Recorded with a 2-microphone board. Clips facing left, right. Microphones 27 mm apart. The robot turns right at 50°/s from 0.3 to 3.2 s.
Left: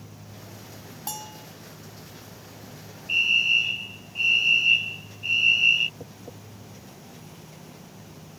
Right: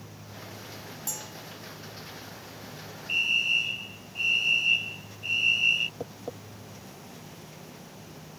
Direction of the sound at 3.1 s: 10° left (ahead or behind).